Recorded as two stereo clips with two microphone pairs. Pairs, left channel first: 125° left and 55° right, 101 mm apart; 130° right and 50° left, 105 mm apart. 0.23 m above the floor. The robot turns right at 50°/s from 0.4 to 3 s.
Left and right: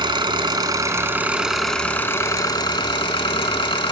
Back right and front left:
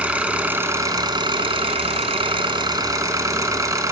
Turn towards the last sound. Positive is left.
turn(degrees=100)